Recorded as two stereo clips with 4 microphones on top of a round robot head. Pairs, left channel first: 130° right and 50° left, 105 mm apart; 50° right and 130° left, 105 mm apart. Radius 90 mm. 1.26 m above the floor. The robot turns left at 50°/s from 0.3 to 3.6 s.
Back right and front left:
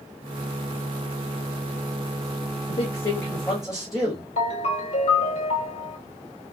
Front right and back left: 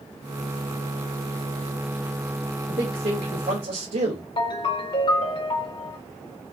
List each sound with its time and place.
2.7 s a man speaking: 175° right, 2 m; by 4.3 s 140° left, 2 m
4.4 s a ringtone: 100° right, 1.9 m